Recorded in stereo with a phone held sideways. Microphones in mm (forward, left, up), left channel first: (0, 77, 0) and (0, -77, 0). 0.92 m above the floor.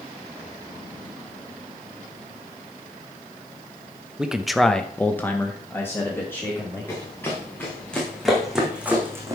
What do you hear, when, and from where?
4.2 s a man speaking: 5° right (ahead or behind), 0.9 m; by 6.9 s 15° left (ahead or behind), 2.5 m
6.9 s running footsteps: 15° left (ahead or behind), 4.5 m; by 9.3 s 20° right (ahead or behind), 2.5 m